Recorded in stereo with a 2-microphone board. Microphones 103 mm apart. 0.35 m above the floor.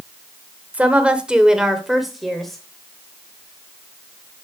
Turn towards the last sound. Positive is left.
turn(degrees=5)  # may be behind; listen again after turning